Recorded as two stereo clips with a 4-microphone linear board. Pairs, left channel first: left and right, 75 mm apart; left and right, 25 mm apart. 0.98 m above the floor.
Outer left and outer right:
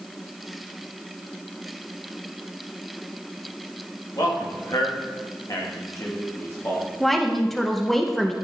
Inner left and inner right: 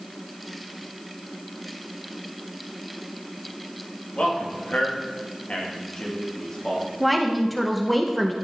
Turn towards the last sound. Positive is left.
turn(degrees=5)  # may be behind; listen again after turning